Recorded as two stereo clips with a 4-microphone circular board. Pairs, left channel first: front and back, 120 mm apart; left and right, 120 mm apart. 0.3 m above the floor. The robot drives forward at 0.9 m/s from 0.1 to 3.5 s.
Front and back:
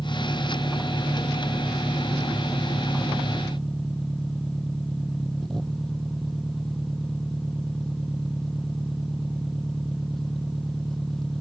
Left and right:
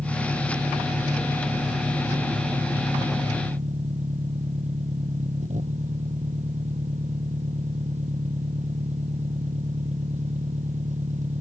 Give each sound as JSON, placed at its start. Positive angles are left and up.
{"t": 0.0, "sound": "an engine running", "azimuth_deg": -70}